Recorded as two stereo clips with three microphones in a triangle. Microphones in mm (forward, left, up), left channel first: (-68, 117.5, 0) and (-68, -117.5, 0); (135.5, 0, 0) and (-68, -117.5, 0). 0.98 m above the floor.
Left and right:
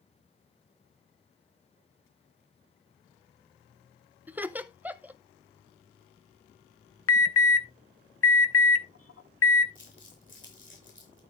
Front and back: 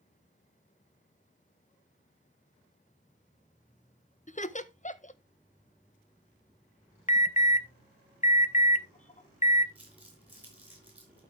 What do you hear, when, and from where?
4.3 s laughter: 10° right, 0.6 m
7.1 s an alarm: 85° left, 0.6 m
9.8 s crumpling: 125° left, 3.5 m